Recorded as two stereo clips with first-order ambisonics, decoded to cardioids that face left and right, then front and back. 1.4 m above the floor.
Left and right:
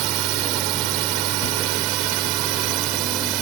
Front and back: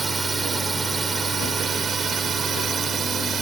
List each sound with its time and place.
0.0 s a drone: 105° right; by 3.4 s 115° right